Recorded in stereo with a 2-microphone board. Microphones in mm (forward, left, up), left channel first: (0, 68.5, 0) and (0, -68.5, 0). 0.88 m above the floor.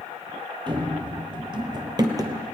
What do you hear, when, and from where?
0.7 s running footsteps: 35° right (ahead or behind), 1.1 m; by 2.4 s 25° right (ahead or behind), 1.2 m